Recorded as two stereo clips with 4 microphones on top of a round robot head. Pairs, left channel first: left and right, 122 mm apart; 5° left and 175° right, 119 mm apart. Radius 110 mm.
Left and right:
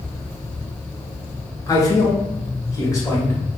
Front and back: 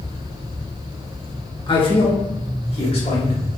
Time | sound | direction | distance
1.7 | a man speaking | 35° left | 1.8 m